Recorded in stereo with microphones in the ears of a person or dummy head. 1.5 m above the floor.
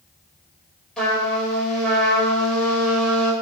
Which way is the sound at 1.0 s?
5° left (ahead or behind).